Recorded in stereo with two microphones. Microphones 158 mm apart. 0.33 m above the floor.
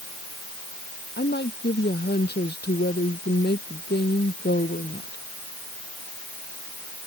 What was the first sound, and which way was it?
A woman speaking, 75° left (ahead or behind).